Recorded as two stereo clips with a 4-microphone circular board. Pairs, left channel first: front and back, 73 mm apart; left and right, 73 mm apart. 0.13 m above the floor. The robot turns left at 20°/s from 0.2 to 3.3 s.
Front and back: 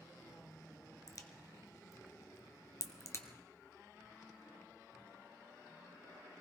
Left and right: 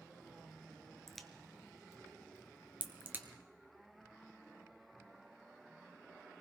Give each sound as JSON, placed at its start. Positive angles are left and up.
{"t": 1.1, "sound": "a crack", "azimuth_deg": 5, "distance_m": 1.0}